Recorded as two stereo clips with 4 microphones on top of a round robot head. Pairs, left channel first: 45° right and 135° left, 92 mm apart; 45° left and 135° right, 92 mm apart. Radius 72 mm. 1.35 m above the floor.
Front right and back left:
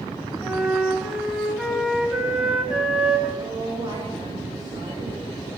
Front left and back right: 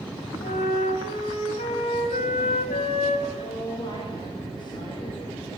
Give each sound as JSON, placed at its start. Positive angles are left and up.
{"t": 0.4, "sound": "a flute", "azimuth_deg": 55, "distance_m": 4.0}
{"t": 3.4, "sound": "a woman speaking", "azimuth_deg": 85, "distance_m": 9.0}